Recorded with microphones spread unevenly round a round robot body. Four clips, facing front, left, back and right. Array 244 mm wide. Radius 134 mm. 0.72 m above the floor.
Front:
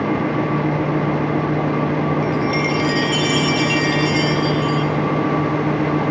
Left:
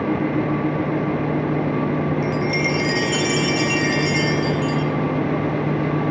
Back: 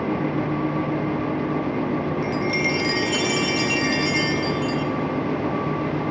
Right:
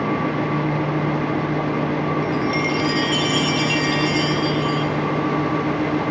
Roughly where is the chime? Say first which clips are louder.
Even, front 4 dB; left.